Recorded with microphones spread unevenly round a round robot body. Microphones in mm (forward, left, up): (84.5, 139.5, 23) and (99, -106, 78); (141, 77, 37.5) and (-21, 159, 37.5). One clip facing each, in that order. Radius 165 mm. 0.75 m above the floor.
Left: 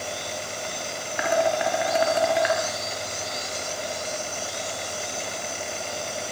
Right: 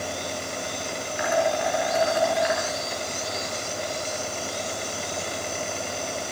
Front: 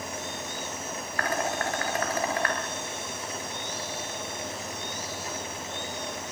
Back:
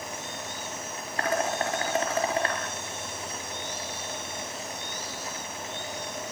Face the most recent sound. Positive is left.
turn(degrees=85)